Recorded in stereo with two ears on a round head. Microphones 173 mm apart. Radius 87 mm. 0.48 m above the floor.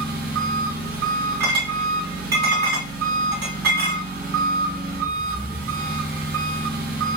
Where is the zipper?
I don't hear a zipper.